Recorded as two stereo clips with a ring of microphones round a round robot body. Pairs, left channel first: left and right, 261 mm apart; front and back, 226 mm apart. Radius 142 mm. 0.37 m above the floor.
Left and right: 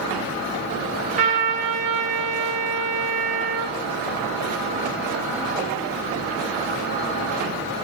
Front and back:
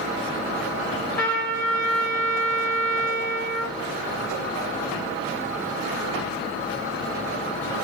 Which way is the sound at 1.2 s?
75° right.